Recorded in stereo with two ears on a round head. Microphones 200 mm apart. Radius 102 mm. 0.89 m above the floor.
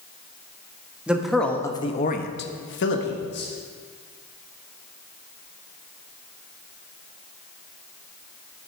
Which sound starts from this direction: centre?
A man speaking, at 1.1 s.